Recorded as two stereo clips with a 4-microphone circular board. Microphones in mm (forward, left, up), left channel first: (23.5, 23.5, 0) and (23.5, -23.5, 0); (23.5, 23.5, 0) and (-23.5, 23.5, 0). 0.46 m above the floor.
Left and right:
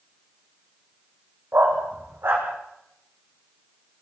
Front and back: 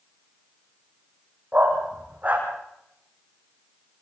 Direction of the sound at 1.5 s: 125° right.